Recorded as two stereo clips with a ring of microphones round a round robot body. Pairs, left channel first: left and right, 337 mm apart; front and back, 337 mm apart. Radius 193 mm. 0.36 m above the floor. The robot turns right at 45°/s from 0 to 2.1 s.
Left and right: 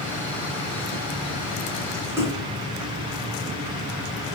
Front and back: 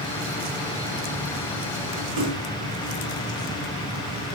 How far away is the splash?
About 5 m.